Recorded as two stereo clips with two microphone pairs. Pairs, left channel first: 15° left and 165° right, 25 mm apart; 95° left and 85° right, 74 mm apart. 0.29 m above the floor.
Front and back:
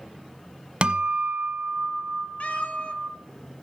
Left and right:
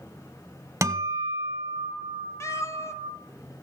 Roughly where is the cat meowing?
Ahead left.